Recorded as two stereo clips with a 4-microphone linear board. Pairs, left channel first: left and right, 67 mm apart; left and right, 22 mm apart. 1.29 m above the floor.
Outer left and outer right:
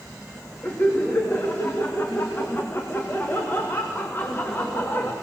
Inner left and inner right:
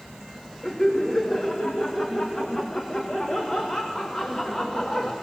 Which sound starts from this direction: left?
Laughter, at 0.6 s.